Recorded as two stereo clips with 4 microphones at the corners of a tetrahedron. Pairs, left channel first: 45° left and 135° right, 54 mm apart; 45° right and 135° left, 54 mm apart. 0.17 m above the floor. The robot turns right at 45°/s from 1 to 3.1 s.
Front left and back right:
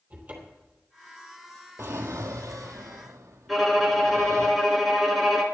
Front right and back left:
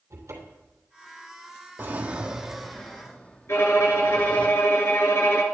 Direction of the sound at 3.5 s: 45° right.